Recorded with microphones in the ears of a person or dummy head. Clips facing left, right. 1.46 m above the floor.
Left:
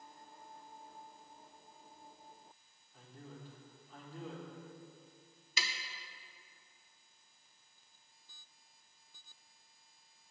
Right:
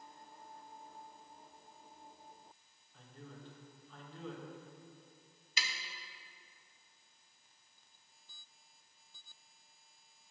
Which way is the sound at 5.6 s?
80° left.